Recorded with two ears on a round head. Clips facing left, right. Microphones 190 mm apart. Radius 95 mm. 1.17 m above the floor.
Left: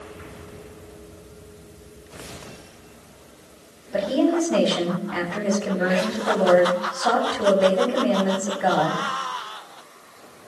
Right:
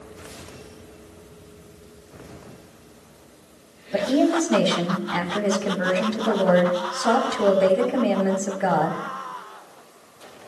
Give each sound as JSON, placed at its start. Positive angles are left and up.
{"t": 3.9, "sound": "a woman speaking", "side_deg": -65, "distance_m": 8.0}